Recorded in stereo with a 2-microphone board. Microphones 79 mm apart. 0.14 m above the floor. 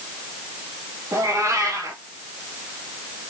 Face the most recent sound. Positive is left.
turn(degrees=-40)  # may be behind; listen again after turning